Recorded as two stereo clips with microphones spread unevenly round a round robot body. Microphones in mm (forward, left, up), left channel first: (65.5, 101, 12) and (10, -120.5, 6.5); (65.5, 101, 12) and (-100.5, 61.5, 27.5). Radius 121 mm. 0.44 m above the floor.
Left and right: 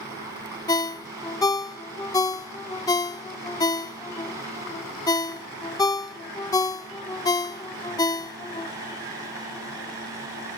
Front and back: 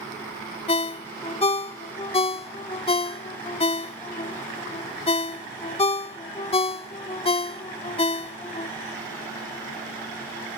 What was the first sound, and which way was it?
A ringtone, 10° left.